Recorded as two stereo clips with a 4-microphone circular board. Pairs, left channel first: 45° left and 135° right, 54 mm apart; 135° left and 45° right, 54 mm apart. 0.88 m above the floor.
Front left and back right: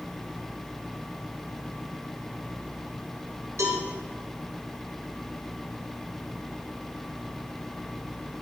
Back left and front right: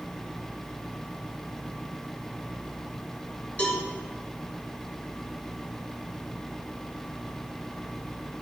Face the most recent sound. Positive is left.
turn(degrees=-160)